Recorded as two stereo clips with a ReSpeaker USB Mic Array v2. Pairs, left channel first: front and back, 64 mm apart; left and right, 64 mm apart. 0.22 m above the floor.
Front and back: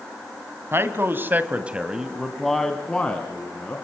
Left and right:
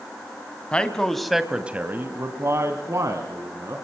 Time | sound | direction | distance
0.7 | a man speaking | 155° left | 1.9 m